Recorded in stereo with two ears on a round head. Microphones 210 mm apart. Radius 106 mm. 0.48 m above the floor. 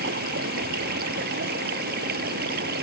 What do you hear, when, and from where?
0.0 s running water: 40° right (ahead or behind)